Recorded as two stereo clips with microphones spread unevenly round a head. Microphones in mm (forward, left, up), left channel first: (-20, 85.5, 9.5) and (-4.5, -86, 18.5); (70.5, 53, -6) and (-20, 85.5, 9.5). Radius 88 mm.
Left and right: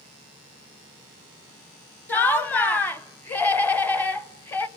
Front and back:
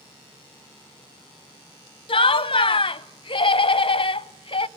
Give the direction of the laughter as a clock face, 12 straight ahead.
12 o'clock.